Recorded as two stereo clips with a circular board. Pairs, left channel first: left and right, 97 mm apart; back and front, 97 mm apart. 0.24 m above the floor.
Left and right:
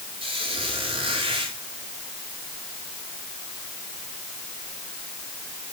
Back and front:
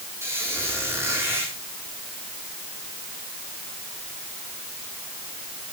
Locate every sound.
0.2 s a squeak: 60° right, 7 m